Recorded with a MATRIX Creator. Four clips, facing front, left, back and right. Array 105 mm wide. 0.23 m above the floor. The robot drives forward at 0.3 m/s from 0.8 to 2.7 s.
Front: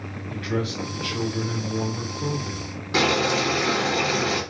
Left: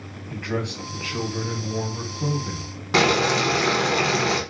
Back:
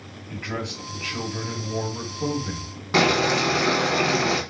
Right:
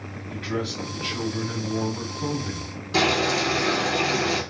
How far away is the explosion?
I don't hear an explosion.